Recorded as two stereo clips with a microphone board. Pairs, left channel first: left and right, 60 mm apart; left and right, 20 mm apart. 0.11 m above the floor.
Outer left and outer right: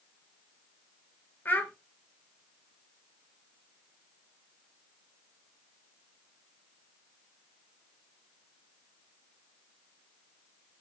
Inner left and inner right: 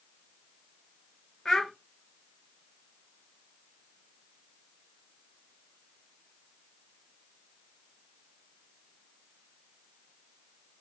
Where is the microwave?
No microwave in this recording.